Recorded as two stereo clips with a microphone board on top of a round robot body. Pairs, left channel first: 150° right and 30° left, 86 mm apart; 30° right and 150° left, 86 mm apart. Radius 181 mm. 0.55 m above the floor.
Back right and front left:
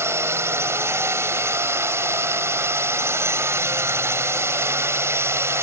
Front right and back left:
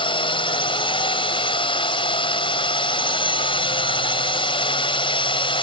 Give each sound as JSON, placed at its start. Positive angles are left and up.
{"t": 0.0, "sound": "a drone", "azimuth_deg": -30}